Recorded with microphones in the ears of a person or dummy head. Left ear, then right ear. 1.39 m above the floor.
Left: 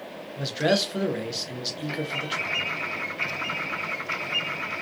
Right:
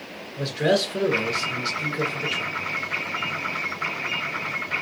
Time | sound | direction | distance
0.4 | a man speaking | 15° left (ahead or behind) | 0.7 m